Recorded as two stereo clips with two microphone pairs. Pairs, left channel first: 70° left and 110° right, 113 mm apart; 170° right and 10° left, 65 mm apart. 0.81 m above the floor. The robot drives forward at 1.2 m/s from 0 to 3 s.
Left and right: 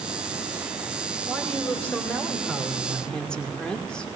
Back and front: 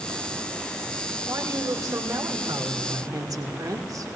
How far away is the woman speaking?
About 4.5 m.